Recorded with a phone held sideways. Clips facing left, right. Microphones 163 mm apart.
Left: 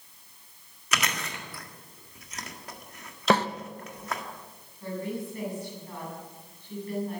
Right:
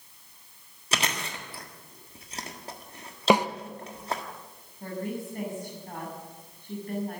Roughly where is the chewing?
Right.